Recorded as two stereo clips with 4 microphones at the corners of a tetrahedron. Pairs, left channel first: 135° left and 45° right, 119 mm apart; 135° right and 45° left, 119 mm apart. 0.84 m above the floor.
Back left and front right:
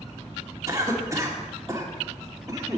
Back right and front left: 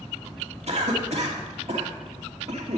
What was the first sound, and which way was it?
A cough, 20° left.